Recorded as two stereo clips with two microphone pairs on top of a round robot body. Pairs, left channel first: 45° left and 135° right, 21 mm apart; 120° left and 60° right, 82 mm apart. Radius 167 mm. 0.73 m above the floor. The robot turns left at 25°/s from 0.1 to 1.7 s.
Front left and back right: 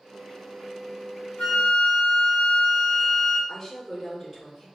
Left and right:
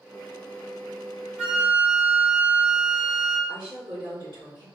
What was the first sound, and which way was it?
A flute, 20° left.